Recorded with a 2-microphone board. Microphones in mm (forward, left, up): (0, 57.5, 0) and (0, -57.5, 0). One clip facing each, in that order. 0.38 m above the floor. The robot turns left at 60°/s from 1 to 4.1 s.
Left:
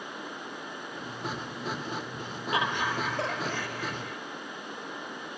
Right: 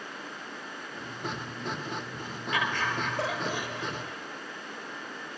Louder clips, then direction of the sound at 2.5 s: Left 1 dB; 40° left.